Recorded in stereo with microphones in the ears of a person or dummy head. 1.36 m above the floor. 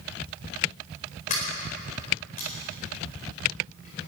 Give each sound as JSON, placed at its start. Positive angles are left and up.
{"t": 1.3, "sound": "a sliding door", "side_deg": 40, "distance_m": 4.5}